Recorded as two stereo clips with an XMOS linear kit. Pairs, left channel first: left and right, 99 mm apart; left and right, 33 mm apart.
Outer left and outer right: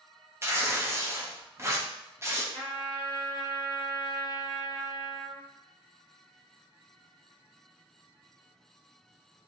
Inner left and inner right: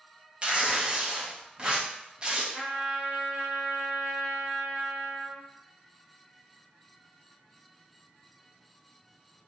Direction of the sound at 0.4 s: 25° right (ahead or behind).